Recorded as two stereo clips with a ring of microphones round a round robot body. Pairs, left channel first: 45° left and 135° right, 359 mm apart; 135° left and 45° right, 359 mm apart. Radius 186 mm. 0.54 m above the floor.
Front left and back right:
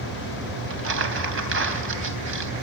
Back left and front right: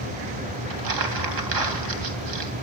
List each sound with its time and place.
0.7 s crumpling: 80° right, 3.5 m